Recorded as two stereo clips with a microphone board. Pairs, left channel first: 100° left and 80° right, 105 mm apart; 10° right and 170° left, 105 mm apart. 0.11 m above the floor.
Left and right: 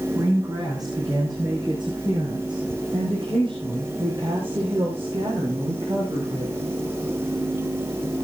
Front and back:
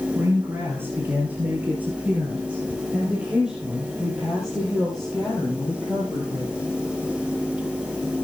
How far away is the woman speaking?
About 4 m.